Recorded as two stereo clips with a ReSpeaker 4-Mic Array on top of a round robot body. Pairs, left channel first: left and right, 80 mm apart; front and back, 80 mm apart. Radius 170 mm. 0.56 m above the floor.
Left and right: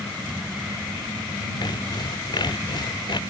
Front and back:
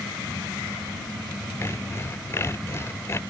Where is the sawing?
60° left.